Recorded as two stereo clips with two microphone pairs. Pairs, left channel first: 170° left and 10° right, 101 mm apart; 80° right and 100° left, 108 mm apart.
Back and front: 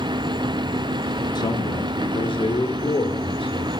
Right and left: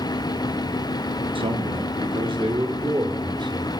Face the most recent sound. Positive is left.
turn(degrees=145)